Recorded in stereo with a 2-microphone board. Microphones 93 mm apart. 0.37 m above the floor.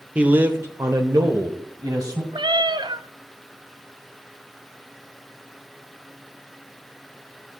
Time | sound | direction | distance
0.1 | a man speaking | 15° right (ahead or behind) | 1.0 m
2.3 | a cat meowing | 55° right (ahead or behind) | 0.8 m